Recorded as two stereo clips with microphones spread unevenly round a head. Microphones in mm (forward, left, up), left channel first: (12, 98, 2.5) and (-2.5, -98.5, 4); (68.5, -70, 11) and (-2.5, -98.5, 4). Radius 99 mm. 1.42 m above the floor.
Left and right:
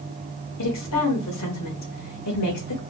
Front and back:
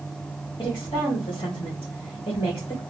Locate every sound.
0.6 s a woman speaking: 85° left, 1.6 m